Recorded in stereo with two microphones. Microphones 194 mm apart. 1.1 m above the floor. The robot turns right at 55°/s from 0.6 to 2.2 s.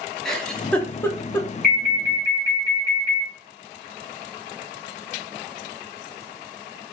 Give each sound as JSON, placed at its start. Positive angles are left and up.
{"t": 0.2, "sound": "a giggle", "side_deg": 5, "distance_m": 0.6}
{"t": 1.6, "sound": "an alarm", "azimuth_deg": 50, "distance_m": 1.9}